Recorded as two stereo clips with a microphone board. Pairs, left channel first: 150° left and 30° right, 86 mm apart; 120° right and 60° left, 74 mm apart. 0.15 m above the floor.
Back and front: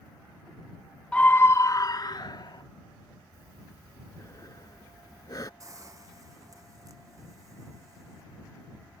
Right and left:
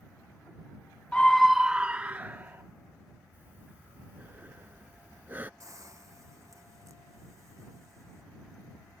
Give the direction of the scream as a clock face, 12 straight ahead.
5 o'clock.